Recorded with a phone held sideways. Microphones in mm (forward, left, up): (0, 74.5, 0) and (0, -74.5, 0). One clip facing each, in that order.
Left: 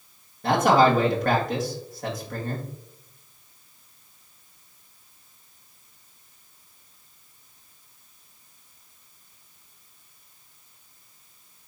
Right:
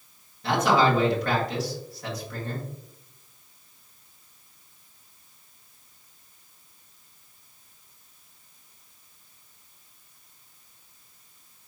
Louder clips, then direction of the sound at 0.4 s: Left 3 dB; 50° left (ahead or behind).